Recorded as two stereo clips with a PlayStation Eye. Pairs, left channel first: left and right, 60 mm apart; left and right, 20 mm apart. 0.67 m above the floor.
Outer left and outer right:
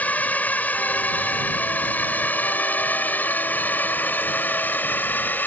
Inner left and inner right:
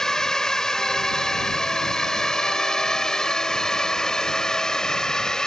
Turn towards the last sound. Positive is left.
turn(degrees=30)  # may be behind; listen again after turning